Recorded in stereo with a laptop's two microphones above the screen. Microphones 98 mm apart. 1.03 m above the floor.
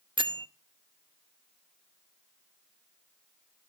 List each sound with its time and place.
0.2 s a bell: 55° right (ahead or behind), 0.6 m